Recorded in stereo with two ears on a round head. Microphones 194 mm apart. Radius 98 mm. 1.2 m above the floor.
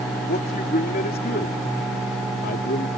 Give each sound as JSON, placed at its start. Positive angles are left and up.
{"t": 0.3, "sound": "a man speaking", "side_deg": 40}